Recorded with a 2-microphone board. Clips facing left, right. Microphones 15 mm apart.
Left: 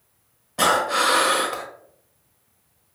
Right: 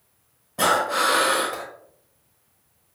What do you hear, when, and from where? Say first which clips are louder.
0.6 s breathing: left 1 dB; 35° left (ahead or behind), 1.2 m